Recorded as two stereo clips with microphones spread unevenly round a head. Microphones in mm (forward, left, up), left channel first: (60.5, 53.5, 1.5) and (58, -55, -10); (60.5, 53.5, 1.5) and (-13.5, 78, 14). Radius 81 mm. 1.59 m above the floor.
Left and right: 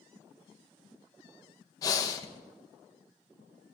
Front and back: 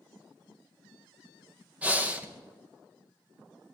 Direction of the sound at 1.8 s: 110° left.